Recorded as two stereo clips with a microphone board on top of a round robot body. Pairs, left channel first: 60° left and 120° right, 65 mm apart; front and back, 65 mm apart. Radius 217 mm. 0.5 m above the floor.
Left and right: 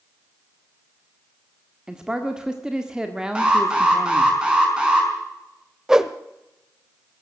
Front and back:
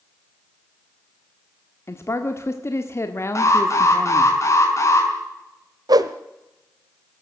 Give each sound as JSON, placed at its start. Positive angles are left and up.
{"t": 1.9, "sound": "a man speaking", "azimuth_deg": -40, "distance_m": 1.8}
{"t": 3.4, "sound": "an alarm", "azimuth_deg": -40, "distance_m": 5.5}
{"t": 5.9, "sound": "a whoosh", "azimuth_deg": 160, "distance_m": 0.8}